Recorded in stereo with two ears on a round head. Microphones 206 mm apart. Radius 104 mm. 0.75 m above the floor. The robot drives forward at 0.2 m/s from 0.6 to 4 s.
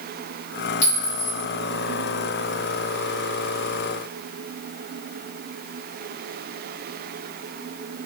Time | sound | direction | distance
0.8 | a clink | 60° left (ahead or behind) | 1.1 m